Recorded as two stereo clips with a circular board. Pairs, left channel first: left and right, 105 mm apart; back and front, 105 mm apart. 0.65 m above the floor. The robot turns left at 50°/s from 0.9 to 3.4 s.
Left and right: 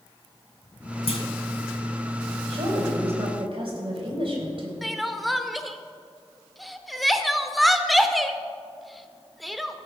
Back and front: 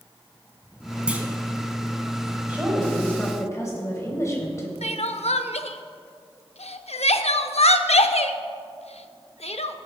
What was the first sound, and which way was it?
A clunk, 80° left.